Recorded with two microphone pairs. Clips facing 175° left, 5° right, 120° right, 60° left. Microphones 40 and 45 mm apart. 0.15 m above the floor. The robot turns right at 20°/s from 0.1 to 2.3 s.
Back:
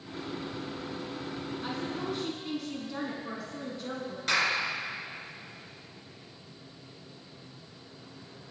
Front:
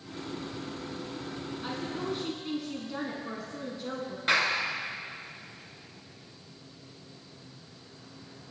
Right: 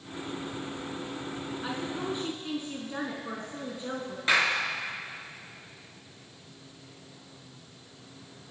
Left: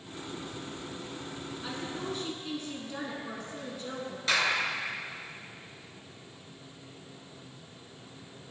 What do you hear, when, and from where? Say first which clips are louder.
1.6 s a woman speaking: front 1 dB, right 3 dB; 95° right, 1.2 m; by 4.2 s 85° right, 1.2 m
4.3 s a clap: front 1 dB, right 3 dB; 65° right, 2 m